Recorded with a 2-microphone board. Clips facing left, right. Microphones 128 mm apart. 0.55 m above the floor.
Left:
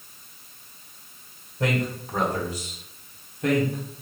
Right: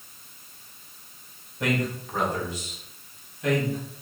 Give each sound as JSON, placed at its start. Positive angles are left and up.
{"t": 1.6, "sound": "a man speaking", "side_deg": 30, "distance_m": 2.0}